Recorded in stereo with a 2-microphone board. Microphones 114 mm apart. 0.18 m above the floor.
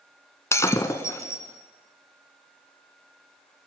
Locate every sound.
0.5 s breaking glass: 25° left (ahead or behind), 1.1 m